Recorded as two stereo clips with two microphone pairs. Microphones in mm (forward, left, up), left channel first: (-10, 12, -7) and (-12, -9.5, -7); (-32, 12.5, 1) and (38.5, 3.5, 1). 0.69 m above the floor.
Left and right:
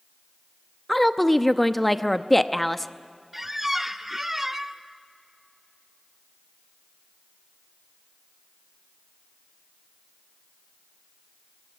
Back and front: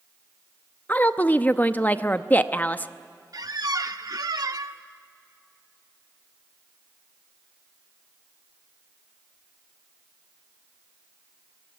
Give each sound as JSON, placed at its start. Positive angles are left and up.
{"t": 0.9, "sound": "a woman speaking", "azimuth_deg": 155, "distance_m": 0.7}
{"t": 3.3, "sound": "a squeak", "azimuth_deg": -20, "distance_m": 0.8}